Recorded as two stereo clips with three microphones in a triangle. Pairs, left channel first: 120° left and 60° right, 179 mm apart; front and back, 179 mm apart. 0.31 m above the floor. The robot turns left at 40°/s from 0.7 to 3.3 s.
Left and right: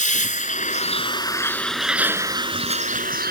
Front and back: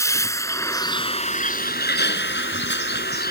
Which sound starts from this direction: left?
A vehicle, at 0.0 s.